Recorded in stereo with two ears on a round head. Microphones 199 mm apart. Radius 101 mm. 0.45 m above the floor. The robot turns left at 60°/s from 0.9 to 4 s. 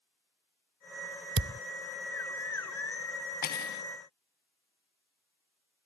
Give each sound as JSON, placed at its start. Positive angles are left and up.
{"t": 1.4, "sound": "a thud", "side_deg": -55}
{"t": 3.4, "sound": "cutlery clinking", "side_deg": 40}